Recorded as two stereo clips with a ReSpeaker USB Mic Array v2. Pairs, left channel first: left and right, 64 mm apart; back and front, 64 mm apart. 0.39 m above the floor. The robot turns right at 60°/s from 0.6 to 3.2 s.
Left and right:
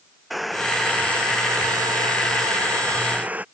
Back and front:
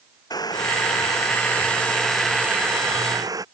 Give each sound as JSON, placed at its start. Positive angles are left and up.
{"t": 0.3, "sound": "boiling", "azimuth_deg": 180}